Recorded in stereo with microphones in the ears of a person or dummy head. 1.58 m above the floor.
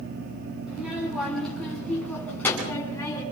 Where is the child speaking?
5° right (ahead or behind), 9.5 m; by 3.2 s 15° left (ahead or behind), 9 m.